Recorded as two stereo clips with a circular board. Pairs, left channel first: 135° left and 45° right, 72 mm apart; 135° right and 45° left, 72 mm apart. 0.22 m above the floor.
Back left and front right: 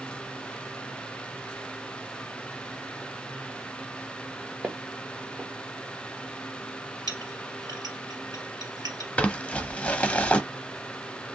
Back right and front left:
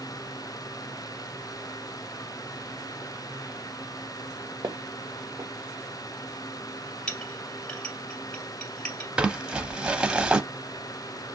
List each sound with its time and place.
4.6 s footsteps: 20° left, 1.0 m
7.1 s a clink: 55° right, 2.5 m
9.2 s crumpling: 95° left, 0.6 m